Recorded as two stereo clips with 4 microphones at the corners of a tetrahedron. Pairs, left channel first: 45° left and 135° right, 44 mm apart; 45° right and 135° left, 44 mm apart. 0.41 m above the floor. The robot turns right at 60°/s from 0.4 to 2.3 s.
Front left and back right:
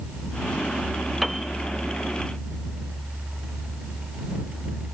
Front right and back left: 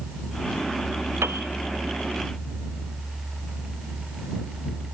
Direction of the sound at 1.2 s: 135° left.